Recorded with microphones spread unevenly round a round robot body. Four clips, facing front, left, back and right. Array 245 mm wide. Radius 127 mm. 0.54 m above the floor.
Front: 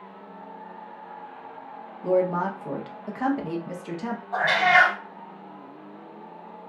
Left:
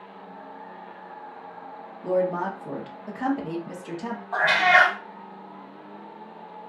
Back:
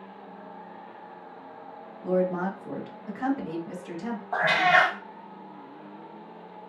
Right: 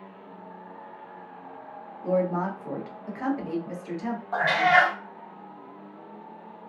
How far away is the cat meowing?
About 0.7 m.